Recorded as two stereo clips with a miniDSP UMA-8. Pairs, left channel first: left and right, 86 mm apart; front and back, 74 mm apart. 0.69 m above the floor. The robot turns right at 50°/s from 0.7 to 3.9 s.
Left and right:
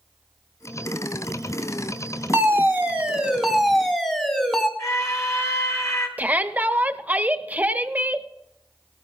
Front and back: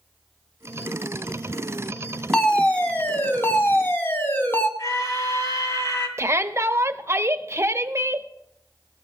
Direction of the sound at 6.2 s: 150° right.